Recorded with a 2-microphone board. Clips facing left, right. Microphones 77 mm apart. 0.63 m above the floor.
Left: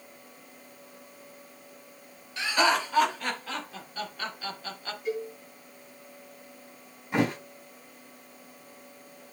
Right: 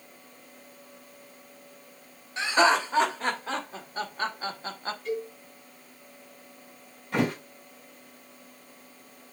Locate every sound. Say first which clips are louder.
2.4 s laughter: right 3 dB; 30° right (ahead or behind), 2.5 m; by 5.0 s 35° right (ahead or behind), 1.3 m
5.0 s a cowbell: left 1 dB; 10° left (ahead or behind), 4.5 m
7.1 s a thud: even; 10° left (ahead or behind), 4.5 m